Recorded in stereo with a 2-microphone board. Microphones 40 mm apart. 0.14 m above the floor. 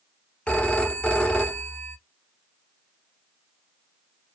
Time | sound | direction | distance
0.5 | a phone ringing | 25° left (ahead or behind) | 0.9 m